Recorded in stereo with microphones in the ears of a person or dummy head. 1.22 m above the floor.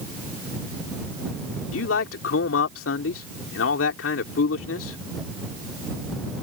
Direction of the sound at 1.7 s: 70° left (ahead or behind).